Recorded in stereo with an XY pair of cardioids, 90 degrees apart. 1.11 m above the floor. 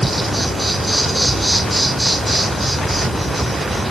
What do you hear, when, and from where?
0.0 s an insect: 15° right, 3 m